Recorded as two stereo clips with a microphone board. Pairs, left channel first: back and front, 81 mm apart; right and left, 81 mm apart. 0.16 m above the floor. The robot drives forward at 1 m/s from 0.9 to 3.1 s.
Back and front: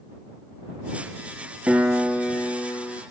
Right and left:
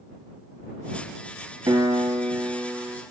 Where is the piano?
65° left, 0.9 m; by 3.0 s 145° left, 1.3 m.